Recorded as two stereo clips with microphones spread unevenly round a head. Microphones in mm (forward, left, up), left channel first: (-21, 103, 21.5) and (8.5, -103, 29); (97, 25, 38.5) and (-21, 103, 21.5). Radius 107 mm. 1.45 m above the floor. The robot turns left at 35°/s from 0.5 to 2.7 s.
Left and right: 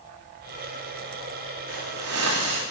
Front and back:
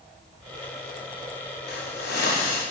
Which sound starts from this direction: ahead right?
A hiss, at 1.7 s.